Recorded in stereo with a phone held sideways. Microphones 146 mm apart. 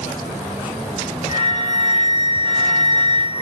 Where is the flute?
45° left (ahead or behind), 3 m.